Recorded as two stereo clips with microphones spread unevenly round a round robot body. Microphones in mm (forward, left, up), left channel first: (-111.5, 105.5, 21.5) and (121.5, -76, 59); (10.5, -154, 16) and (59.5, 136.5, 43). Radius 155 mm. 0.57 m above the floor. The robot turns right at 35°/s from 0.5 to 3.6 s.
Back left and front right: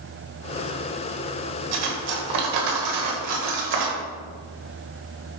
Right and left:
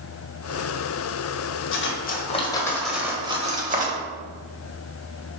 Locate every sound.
1.7 s cutlery clinking: 50° right, 1.4 m; by 4.0 s 15° left, 1.4 m